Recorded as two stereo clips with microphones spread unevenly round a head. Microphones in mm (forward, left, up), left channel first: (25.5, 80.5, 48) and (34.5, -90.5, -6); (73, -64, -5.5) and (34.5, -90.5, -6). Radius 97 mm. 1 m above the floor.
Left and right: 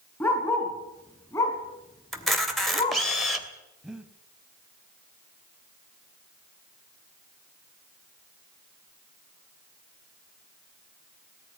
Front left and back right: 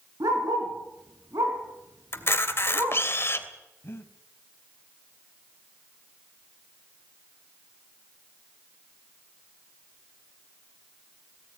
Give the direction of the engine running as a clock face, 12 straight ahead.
I don't hear an engine running.